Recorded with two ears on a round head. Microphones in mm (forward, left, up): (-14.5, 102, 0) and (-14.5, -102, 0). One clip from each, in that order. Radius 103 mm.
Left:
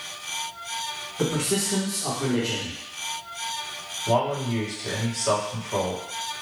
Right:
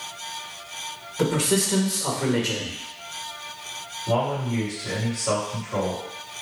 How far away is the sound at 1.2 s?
About 1.3 m.